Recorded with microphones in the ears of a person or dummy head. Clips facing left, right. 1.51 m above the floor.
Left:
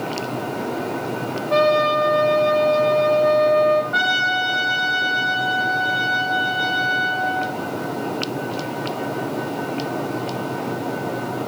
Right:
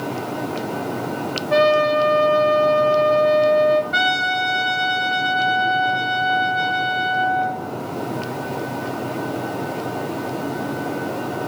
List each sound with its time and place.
1.5 s a trumpet: 15° right (ahead or behind), 1.5 m
3.9 s a trumpet: 40° right (ahead or behind), 1.7 m